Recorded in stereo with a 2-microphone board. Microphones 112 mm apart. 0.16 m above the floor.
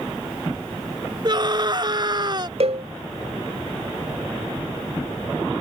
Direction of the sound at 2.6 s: 60° right (ahead or behind).